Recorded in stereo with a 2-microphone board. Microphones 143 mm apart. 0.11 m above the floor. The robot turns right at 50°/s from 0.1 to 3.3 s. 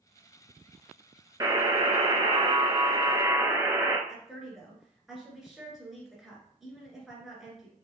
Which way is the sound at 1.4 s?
135° right.